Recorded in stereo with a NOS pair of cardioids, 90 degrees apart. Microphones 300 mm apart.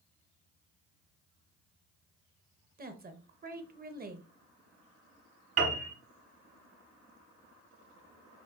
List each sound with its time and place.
2.8 s a woman speaking: 30° right, 1.0 m
5.6 s a piano: 50° right, 2.5 m